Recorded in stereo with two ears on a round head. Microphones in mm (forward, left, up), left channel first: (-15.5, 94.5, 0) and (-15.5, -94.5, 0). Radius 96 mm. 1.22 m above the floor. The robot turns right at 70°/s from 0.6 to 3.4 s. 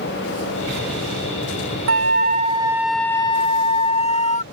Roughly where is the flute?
Right.